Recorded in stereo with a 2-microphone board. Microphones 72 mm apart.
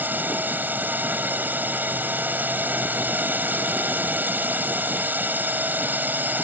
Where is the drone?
25° right (ahead or behind).